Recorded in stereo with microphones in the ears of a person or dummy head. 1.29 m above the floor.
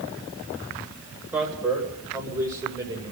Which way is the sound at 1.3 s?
10° right (ahead or behind).